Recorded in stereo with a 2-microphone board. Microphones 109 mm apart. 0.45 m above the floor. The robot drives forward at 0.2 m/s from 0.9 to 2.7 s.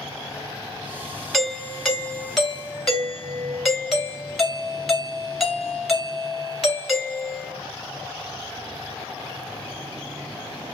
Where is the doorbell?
Centre (ahead or behind), 1.2 m.